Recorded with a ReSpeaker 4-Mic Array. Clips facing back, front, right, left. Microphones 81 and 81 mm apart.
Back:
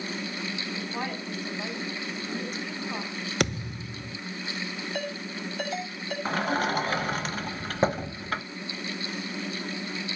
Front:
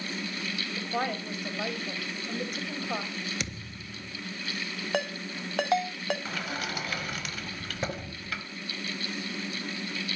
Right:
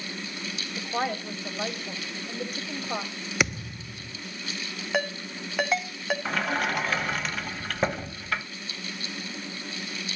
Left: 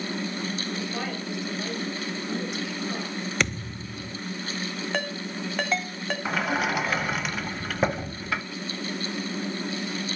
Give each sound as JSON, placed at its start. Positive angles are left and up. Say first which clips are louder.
{"t": 0.8, "sound": "a woman speaking", "louder": "front 5 dB, right 2 dB", "azimuth_deg": -40, "distance_m": 4.5}
{"t": 3.4, "sound": "a thud", "louder": "back 10 dB, right 4 dB", "azimuth_deg": -170, "distance_m": 0.6}
{"t": 4.9, "sound": "a ringtone", "louder": "front 5 dB, right 4 dB", "azimuth_deg": -5, "distance_m": 2.0}
{"t": 6.2, "sound": "a sliding door", "louder": "back 8 dB, left 3 dB", "azimuth_deg": 170, "distance_m": 1.0}